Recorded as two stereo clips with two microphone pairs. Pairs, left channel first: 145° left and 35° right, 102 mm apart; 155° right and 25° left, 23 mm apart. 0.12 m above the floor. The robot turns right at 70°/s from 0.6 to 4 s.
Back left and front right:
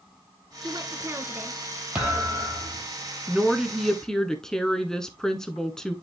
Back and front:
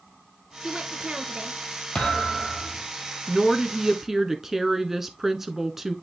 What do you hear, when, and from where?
0.6 s a woman speaking: 20° right, 1.7 m; by 1.6 s 50° left, 1.7 m
1.9 s a thud: 115° right, 2.5 m; by 2.8 s 50° right, 2.5 m
3.3 s a woman speaking: 15° left, 1.1 m; by 6.0 s 70° left, 1.1 m